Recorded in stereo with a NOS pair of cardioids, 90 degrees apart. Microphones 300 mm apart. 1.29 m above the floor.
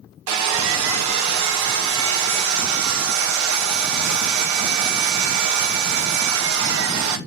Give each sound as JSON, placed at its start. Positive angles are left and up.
{"t": 0.3, "sound": "sawing", "azimuth_deg": -70, "distance_m": 0.6}